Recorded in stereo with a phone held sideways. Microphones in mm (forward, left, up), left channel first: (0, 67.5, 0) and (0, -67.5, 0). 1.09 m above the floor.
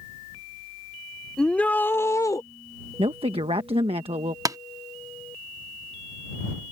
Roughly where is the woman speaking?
Right.